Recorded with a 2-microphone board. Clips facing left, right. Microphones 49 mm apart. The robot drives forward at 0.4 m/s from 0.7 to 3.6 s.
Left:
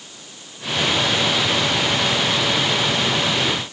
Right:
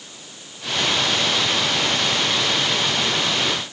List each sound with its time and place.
Only background noise.